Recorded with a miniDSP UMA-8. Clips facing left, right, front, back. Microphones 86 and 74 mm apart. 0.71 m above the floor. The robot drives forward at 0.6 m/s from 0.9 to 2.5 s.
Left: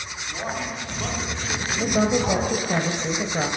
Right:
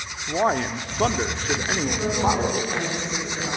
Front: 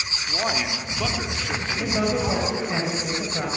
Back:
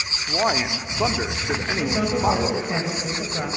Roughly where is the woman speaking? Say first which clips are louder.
Left 5 dB, back 1 dB; left.